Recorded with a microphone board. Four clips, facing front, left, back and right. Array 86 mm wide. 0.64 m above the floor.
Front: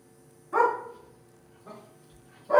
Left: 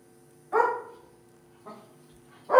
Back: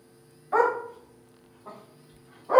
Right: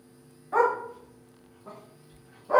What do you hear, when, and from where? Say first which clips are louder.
0.5 s a dog barking: right 1 dB, back 1 dB; 165° left, 1.5 m; by 2.6 s 140° left, 2.5 m